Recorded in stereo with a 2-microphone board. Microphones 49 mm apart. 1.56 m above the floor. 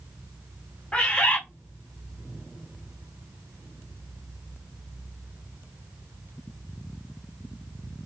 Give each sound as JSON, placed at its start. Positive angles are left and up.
{"t": 0.9, "sound": "a bird", "side_deg": 20, "distance_m": 1.1}